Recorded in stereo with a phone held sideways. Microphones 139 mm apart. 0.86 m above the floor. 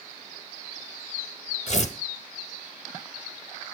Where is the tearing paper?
55° left (ahead or behind), 0.9 m.